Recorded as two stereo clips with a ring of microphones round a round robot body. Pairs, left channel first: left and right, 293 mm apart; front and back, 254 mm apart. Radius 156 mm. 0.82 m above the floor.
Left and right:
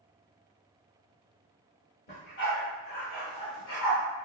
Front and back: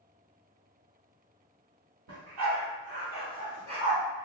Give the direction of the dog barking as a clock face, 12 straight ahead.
7 o'clock.